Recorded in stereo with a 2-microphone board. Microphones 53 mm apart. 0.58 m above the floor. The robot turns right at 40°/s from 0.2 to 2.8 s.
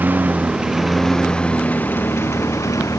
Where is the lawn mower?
35° right (ahead or behind); by 3.0 s 80° left.